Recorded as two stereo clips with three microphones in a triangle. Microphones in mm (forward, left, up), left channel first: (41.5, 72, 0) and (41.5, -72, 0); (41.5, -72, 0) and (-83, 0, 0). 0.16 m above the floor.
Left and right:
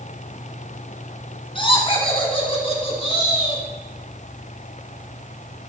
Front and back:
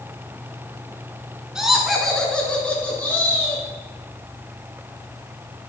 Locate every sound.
1.6 s laughter: 65° left, 1.4 m; by 3.6 s 40° left, 2.5 m